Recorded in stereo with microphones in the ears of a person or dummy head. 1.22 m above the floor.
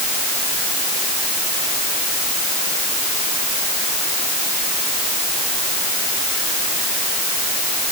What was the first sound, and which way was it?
Only background noise.